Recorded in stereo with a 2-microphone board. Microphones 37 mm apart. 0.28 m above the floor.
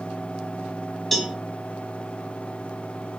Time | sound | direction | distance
1.1 | a cowbell | 5° left (ahead or behind) | 1.4 m